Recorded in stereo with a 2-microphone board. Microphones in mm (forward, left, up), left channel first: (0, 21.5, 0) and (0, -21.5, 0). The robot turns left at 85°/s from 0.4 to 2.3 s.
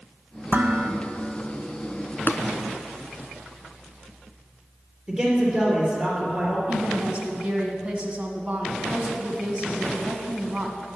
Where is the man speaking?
30° right (ahead or behind), 2.5 m.